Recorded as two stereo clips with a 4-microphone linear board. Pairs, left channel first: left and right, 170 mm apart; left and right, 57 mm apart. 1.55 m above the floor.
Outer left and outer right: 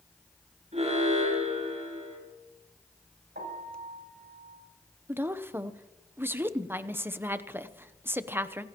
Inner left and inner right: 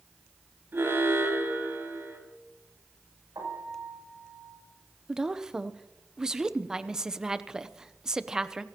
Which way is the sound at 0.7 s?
40° right (ahead or behind).